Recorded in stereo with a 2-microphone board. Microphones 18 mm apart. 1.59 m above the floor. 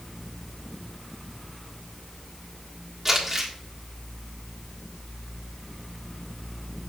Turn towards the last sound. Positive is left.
turn(degrees=-10)  # may be behind; listen again after turning